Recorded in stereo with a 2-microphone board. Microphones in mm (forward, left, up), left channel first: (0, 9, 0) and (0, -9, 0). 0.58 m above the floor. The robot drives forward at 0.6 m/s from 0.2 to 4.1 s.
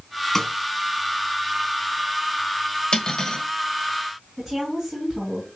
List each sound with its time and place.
0.3 s a snare drum: 25° left (ahead or behind), 1.2 m
2.9 s cutlery clinking: 45° left (ahead or behind), 1.4 m; by 3.4 s 40° left (ahead or behind), 1.6 m
4.4 s a woman speaking: 5° right (ahead or behind), 5 m